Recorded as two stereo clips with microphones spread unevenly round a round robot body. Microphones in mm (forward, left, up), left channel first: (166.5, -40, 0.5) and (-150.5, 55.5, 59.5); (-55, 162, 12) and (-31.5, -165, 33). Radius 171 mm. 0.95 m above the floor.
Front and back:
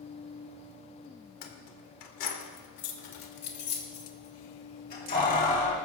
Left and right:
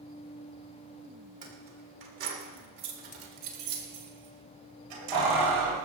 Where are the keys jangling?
15° right, 2 m; by 5.8 s 90° right, 4 m.